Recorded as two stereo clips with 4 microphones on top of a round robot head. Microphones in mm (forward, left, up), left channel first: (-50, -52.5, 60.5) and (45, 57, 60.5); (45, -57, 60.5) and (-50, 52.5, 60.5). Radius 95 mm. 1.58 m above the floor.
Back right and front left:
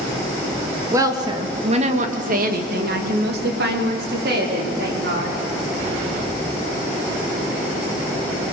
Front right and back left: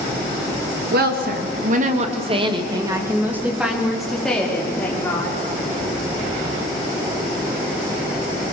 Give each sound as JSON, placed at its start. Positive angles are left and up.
{"t": 0.9, "sound": "a woman speaking", "azimuth_deg": 120, "distance_m": 3.0}